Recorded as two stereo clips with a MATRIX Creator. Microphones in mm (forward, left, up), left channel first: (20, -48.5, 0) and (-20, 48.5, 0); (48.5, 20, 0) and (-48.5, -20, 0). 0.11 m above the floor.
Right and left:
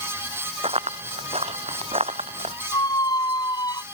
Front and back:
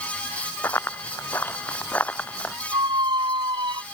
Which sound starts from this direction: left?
Running footsteps, at 0.6 s.